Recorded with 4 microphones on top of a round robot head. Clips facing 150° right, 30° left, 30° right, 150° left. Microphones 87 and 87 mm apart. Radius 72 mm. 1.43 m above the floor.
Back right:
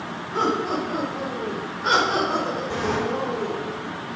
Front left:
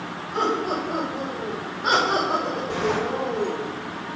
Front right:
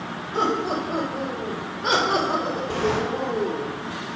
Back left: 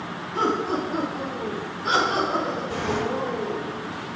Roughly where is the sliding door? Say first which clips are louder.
Front left 3 dB, front right 6 dB; ahead right.